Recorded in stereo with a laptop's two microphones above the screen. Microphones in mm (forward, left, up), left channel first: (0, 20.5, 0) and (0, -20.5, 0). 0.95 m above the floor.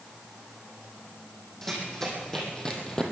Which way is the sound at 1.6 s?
10° left (ahead or behind).